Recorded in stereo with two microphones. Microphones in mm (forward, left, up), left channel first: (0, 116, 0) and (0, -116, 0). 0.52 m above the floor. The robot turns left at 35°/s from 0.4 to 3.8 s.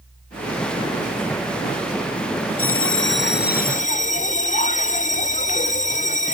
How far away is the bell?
About 0.5 m.